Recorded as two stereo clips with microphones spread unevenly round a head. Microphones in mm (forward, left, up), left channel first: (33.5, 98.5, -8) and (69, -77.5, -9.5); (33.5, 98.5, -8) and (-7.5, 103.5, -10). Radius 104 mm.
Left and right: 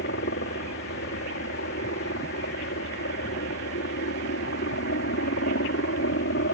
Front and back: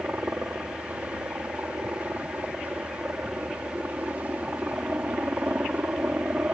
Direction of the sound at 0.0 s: 130° left.